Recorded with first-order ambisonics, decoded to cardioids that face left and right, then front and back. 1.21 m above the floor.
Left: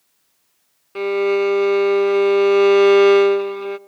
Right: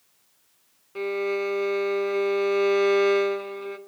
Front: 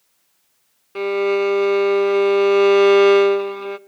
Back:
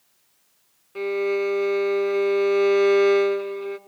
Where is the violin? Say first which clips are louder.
Left 8 dB, front 5 dB; 45° left, 0.6 m.